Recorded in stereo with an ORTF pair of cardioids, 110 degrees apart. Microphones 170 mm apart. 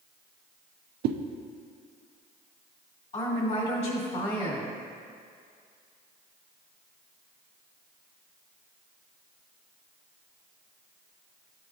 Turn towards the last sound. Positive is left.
turn(degrees=40)